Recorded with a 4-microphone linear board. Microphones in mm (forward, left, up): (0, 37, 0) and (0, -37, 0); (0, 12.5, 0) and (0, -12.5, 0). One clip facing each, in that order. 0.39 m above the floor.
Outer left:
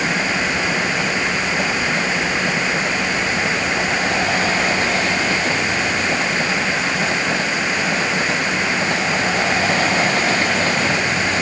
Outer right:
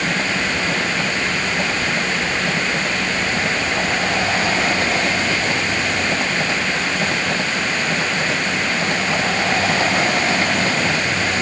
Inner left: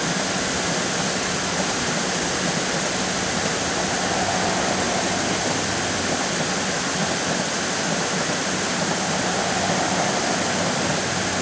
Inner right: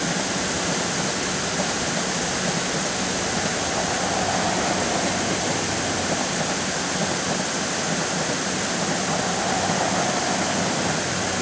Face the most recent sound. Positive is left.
No sound to turn to.